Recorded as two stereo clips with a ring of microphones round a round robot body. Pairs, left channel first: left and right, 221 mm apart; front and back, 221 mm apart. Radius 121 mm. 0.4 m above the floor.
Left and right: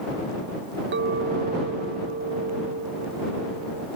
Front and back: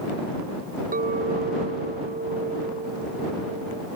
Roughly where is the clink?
Behind right.